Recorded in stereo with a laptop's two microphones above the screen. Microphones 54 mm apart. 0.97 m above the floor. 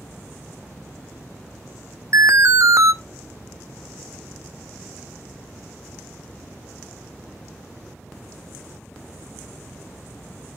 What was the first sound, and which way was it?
An alarm, 65° right (ahead or behind).